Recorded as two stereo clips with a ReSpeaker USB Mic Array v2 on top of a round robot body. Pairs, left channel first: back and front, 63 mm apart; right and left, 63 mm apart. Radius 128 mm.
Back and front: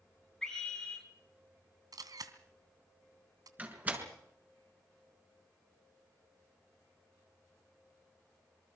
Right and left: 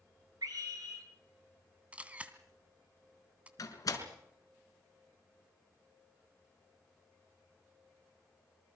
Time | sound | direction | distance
0.4 | a scream | 100° left | 7.5 m
1.9 | a camera shutter | 20° left | 2.5 m
3.6 | a door slam | 65° right | 5 m